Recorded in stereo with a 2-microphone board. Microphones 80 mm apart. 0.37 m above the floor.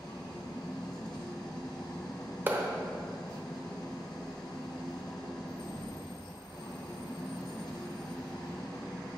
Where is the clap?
25° right (ahead or behind), 0.8 m.